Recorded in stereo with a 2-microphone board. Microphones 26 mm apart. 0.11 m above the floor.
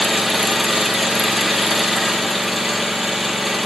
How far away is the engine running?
About 1.4 m.